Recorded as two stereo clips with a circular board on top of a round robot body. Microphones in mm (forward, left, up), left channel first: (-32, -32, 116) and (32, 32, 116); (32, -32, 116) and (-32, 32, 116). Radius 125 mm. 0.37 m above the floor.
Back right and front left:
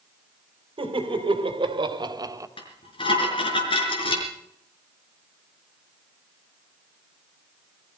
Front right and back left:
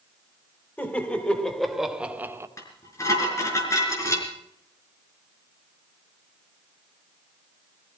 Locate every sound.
0.8 s laughter: 25° left, 3 m; by 2.5 s 85° left, 1.7 m
2.6 s dishes clattering: 105° right, 4.5 m